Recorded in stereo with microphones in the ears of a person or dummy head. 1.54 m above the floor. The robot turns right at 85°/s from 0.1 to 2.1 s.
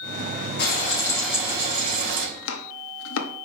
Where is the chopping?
75° left (ahead or behind), 0.8 m.